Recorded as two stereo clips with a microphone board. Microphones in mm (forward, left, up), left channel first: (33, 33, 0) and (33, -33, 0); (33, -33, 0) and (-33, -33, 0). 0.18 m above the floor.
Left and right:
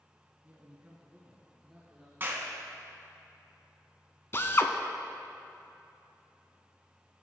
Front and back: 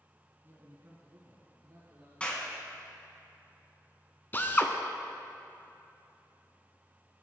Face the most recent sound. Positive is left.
turn(degrees=50)